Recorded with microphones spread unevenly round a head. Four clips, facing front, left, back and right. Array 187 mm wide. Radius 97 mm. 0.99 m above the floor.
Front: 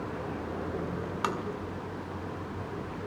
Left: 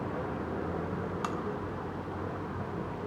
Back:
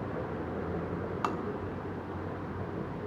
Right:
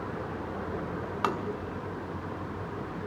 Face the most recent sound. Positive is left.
turn(degrees=-65)